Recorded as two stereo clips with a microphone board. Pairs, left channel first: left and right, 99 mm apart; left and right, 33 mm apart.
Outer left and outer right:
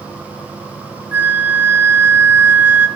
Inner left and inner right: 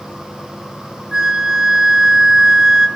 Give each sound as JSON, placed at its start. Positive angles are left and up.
{"t": 1.1, "sound": "a flute", "side_deg": -20, "distance_m": 1.0}